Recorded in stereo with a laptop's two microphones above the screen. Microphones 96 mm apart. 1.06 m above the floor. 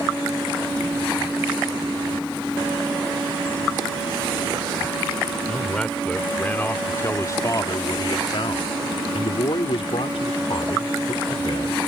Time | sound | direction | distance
5.5 | a man speaking | 5° left (ahead or behind) | ?